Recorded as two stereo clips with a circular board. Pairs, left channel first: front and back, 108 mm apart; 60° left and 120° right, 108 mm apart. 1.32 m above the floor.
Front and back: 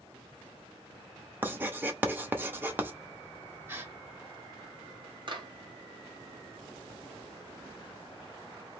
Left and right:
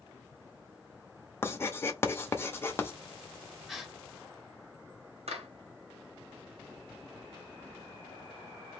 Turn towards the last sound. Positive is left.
turn(degrees=-135)